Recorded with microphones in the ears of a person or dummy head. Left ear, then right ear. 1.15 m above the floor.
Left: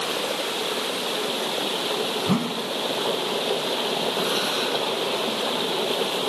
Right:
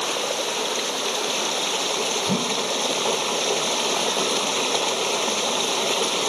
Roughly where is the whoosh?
Left.